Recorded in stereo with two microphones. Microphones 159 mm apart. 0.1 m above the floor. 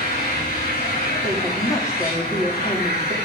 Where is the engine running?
70° left (ahead or behind), 6.5 m.